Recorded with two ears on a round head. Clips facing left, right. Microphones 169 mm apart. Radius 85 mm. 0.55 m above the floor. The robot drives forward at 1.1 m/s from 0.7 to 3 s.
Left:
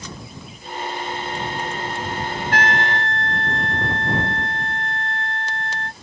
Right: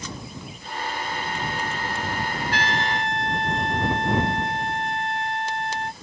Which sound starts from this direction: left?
A trumpet, at 2.5 s.